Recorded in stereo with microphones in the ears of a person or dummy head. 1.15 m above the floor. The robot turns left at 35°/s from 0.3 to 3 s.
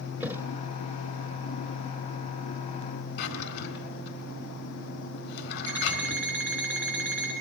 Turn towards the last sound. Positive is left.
turn(degrees=5)  # may be behind; listen again after turning